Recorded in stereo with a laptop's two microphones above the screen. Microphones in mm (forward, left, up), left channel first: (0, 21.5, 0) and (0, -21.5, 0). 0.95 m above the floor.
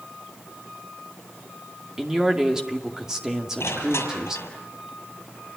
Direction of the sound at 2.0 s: 15° right (ahead or behind).